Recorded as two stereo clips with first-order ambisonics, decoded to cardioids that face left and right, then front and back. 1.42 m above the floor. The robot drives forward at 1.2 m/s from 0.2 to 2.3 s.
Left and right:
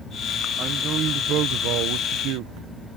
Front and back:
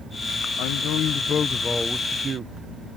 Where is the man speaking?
35° right; by 3.0 s 115° right.